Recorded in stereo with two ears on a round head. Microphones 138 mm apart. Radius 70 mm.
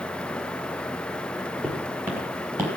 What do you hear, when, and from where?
1.6 s footsteps: 10° right (ahead or behind), 2.5 m; by 2.7 s 15° right (ahead or behind), 3 m